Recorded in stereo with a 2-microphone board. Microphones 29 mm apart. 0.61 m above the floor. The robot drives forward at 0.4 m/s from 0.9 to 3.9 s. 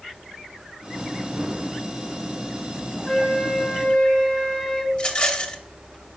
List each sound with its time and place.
3.1 s a flute: 15° right (ahead or behind), 3.5 m
4.9 s a rattle: 35° left (ahead or behind), 0.8 m